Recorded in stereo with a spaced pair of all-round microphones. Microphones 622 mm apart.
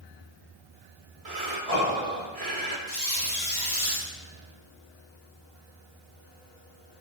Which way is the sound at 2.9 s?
15° left (ahead or behind).